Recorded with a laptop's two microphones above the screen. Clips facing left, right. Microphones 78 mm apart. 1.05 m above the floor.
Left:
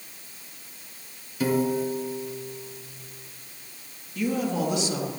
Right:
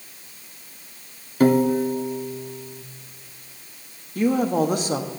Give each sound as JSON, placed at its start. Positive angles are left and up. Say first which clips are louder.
{"t": 1.4, "sound": "a piano", "louder": "right 7 dB", "side_deg": -50, "distance_m": 0.6}
{"t": 4.2, "sound": "a woman speaking", "louder": "right 6 dB", "side_deg": -45, "distance_m": 1.2}